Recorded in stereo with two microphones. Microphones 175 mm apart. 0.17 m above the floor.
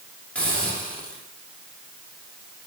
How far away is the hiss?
About 7.5 m.